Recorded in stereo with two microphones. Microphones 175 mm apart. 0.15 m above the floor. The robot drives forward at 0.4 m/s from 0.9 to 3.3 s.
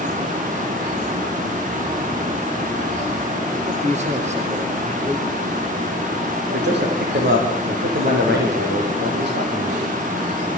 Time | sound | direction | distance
3.7 | a man speaking | 40° right (ahead or behind) | 3 m
6.5 | a man speaking | 80° right | 8.5 m